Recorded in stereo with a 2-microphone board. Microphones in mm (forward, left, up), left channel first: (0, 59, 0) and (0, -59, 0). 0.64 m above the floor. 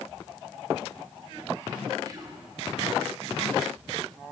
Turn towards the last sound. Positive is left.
turn(degrees=-35)  # may be behind; listen again after turning